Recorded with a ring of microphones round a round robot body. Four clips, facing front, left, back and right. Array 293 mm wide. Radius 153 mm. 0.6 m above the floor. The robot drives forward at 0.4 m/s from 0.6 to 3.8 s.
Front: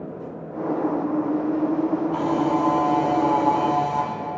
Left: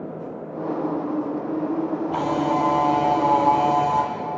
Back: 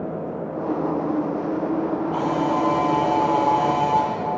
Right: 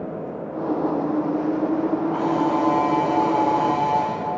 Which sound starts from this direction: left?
A camera shutter, at 2.1 s.